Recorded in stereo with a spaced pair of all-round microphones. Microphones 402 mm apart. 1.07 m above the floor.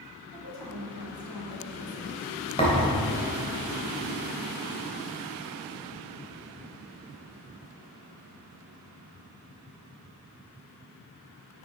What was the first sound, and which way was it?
A woman speaking, 70° left (ahead or behind).